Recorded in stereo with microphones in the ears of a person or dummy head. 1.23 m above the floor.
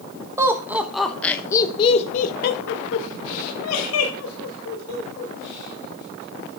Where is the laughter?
15° right (ahead or behind), 1.1 m; by 6.6 s 70° left (ahead or behind), 2.5 m.